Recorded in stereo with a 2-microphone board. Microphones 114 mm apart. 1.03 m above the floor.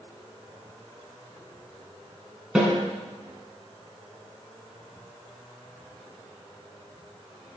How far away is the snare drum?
About 3.5 m.